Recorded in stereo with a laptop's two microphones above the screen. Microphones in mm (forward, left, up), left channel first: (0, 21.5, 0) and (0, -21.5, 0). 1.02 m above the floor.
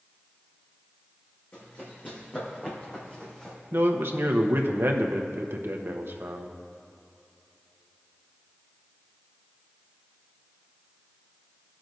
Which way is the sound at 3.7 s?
60° right (ahead or behind).